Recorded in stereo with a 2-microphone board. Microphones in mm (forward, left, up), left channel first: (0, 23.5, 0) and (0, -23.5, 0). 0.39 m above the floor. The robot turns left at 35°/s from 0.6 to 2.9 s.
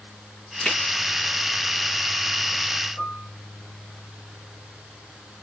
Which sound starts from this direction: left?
A piano, at 3.0 s.